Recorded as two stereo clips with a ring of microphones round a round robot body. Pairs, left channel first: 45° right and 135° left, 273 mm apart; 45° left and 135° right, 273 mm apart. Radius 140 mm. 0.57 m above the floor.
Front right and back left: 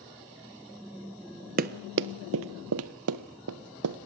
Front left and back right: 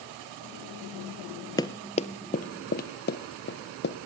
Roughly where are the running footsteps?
Left.